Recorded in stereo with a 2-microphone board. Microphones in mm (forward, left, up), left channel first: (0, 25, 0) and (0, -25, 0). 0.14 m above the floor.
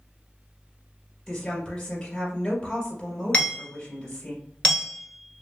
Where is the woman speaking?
5° left (ahead or behind), 1.8 m.